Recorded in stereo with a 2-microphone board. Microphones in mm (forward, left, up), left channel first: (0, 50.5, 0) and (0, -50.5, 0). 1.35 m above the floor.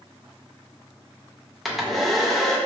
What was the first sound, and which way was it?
A hair dryer, centre (ahead or behind).